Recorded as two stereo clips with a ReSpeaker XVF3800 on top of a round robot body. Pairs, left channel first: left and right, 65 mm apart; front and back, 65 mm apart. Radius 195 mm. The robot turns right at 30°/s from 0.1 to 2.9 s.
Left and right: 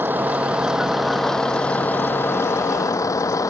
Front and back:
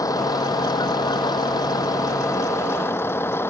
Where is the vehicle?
30° right; by 3.5 s 55° left.